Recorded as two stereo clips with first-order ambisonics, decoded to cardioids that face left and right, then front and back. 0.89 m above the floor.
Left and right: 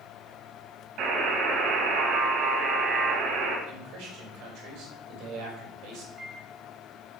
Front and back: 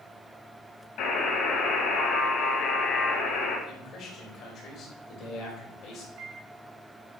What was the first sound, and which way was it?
A buzzer, 45° right.